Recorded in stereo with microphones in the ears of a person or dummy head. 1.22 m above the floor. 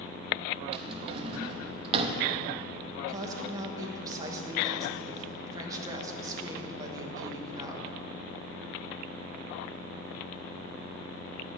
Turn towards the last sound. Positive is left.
turn(degrees=-20)  # may be behind; listen again after turning